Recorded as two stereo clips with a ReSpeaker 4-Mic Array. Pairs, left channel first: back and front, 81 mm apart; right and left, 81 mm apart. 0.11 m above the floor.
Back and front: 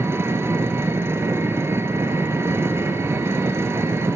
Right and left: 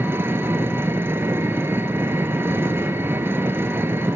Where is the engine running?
40° left, 1.5 m.